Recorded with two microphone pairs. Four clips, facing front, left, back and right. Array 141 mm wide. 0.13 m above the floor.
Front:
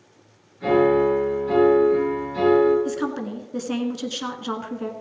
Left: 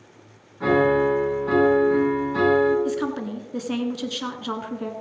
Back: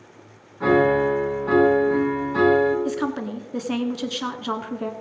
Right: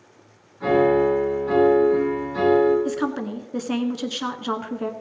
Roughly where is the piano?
Behind left.